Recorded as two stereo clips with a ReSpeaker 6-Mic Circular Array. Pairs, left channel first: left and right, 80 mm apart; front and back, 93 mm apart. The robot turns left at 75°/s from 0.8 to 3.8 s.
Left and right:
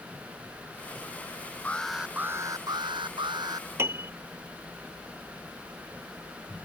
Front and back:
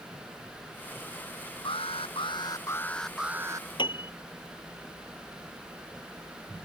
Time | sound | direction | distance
1.6 | an alarm | 20° left | ?
3.8 | a piano | 30° right | ?